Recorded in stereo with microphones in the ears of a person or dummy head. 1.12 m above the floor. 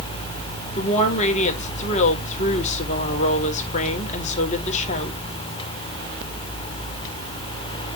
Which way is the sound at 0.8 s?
40° left (ahead or behind).